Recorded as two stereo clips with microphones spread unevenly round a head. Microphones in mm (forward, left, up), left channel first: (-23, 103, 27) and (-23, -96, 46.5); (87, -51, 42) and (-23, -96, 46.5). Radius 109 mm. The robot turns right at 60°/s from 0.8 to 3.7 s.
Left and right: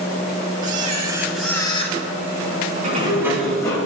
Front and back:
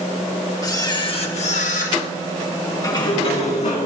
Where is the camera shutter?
40° right, 1.6 m; by 2.0 s 35° left, 1.6 m.